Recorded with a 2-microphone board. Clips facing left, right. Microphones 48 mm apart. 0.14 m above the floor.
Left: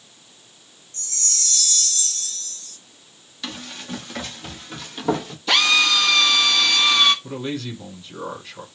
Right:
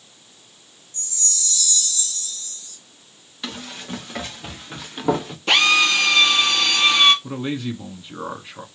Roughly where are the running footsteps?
Centre.